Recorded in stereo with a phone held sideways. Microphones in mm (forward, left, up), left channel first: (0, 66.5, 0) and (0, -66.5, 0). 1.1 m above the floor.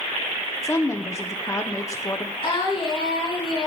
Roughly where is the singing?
Left.